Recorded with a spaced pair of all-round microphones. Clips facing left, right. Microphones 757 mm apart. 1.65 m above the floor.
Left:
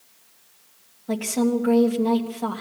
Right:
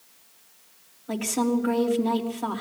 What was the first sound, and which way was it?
A woman speaking, 65° left (ahead or behind).